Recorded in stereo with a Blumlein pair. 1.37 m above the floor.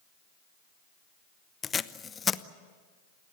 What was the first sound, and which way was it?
Tape being pulled, 20° left.